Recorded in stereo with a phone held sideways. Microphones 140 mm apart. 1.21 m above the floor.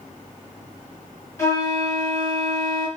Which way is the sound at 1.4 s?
20° left (ahead or behind).